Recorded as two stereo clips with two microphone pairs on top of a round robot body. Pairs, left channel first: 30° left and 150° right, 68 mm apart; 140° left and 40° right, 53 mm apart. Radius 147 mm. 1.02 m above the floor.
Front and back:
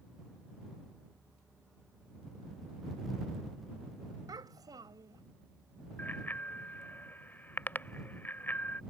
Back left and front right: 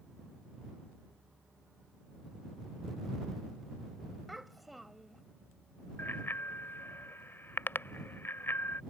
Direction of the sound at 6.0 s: 95° left.